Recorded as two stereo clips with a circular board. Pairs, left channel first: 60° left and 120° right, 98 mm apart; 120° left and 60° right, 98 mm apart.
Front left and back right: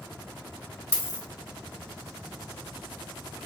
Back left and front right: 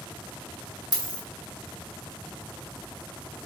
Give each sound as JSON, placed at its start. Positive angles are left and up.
{"t": 0.9, "sound": "a dropped coin", "azimuth_deg": 105, "distance_m": 1.6}